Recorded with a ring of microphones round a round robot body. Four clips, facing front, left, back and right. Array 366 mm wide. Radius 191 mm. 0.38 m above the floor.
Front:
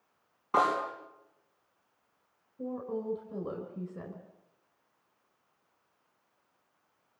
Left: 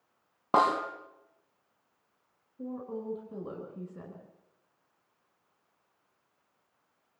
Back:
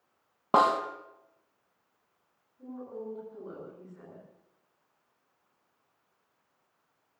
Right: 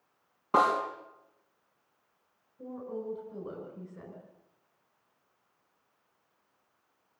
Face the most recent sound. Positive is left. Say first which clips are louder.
# left 1 dB, front 5 dB
turn(degrees=25)